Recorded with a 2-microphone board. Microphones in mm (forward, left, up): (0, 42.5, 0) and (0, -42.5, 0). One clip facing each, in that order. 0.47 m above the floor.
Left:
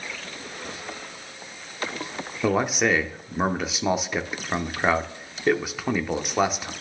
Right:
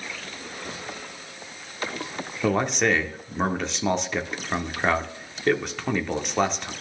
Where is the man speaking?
5° left (ahead or behind), 0.7 m.